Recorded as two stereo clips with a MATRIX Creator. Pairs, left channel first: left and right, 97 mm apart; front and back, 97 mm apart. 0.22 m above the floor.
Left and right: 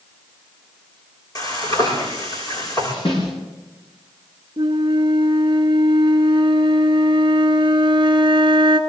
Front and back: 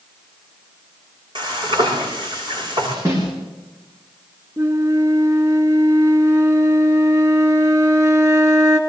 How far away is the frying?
About 8.5 m.